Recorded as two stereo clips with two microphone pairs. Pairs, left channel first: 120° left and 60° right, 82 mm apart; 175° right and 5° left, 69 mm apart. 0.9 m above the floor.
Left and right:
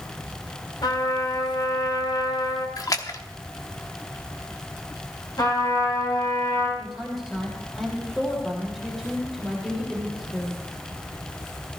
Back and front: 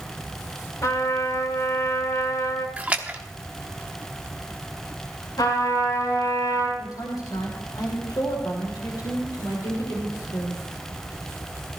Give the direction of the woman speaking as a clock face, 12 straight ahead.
5 o'clock.